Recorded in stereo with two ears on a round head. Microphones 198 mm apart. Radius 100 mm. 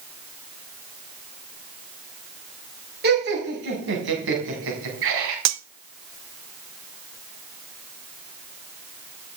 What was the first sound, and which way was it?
Laughter, 50° right (ahead or behind).